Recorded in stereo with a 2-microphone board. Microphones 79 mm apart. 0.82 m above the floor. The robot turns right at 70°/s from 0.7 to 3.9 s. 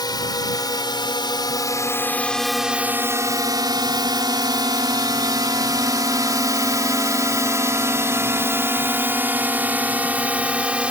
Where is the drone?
60° left (ahead or behind); by 10.9 s 15° right (ahead or behind).